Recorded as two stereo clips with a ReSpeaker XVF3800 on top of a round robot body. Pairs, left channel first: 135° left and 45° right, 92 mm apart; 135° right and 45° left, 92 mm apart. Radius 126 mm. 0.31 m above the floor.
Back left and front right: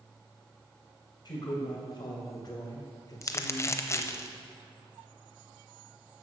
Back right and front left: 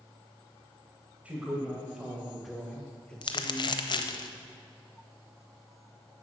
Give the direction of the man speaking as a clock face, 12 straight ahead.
8 o'clock.